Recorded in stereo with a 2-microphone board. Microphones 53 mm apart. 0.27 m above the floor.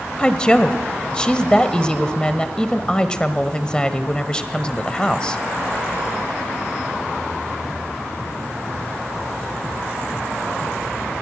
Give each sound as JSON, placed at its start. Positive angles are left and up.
{"t": 0.2, "sound": "a woman speaking", "side_deg": 15, "distance_m": 1.3}